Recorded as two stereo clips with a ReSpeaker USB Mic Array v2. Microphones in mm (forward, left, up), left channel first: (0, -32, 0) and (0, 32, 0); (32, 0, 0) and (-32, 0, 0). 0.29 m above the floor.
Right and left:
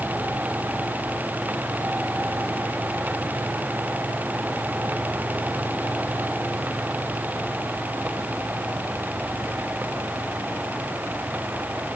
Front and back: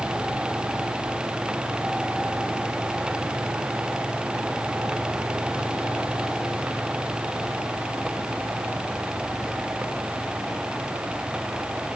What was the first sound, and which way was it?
Only background noise.